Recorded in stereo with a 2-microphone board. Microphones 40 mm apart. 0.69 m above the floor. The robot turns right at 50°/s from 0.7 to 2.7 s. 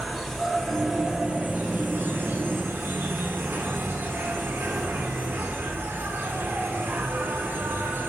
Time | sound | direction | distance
0.0 | an insect | straight behind | 1.7 m